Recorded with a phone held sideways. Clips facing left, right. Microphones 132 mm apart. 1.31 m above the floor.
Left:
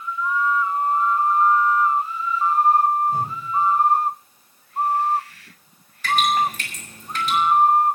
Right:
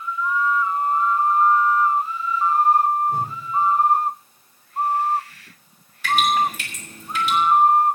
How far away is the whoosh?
About 5.5 m.